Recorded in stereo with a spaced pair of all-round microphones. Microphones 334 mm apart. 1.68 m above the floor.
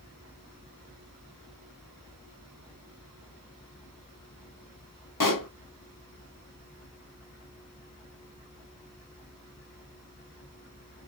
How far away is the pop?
About 0.9 m.